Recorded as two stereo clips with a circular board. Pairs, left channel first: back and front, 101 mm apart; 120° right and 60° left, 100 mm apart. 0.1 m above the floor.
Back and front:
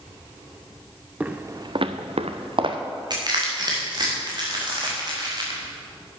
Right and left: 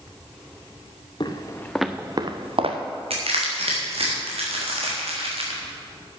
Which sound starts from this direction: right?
Footsteps, at 1.2 s.